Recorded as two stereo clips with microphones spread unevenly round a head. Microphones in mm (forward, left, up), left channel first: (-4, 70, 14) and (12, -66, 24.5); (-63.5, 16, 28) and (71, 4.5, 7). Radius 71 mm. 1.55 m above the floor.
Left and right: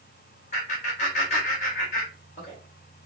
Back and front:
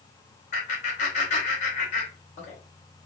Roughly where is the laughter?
Behind left.